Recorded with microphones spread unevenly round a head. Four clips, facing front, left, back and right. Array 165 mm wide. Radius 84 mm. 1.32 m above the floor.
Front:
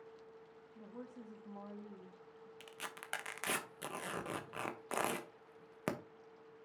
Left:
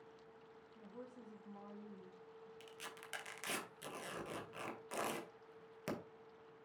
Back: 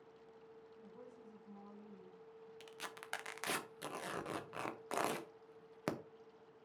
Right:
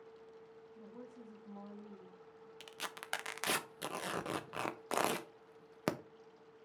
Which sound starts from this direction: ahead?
A woman speaking, at 0.8 s.